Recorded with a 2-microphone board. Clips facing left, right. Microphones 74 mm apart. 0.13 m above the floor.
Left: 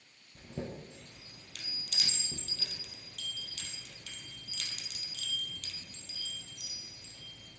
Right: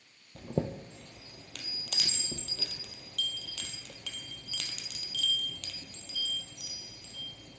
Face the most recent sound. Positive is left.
turn(degrees=-75)  # may be behind; listen again after turning